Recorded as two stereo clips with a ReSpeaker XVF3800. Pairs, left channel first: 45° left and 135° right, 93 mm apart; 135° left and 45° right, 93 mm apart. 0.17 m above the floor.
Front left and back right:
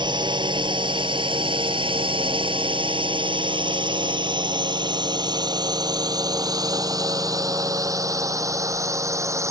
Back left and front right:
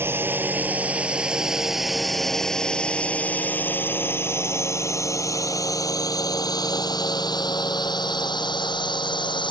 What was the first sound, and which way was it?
A drone, 110° right.